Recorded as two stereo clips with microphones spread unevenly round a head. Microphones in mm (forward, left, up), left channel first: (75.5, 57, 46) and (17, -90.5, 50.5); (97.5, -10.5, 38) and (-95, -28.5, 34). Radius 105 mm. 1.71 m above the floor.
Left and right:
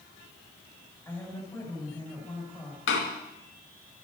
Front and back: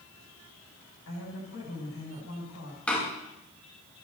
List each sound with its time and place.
1.1 s a woman speaking: 5° right, 8.5 m
2.9 s a door slam: 90° left, 2.5 m